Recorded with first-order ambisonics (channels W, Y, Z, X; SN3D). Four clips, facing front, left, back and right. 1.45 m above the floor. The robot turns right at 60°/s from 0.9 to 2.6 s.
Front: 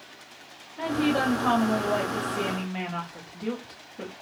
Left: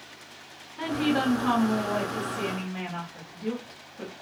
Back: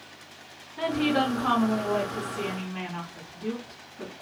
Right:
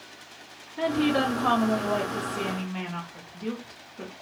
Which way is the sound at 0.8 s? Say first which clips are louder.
Right 2 dB, even; 125° right.